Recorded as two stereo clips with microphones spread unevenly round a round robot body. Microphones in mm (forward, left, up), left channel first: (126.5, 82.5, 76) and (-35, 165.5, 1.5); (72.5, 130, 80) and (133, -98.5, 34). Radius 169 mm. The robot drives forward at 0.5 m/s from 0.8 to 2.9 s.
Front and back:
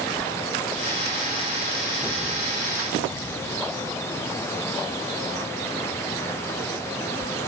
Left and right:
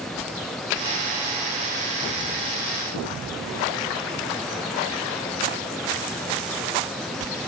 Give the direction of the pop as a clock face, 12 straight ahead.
I don't hear a pop.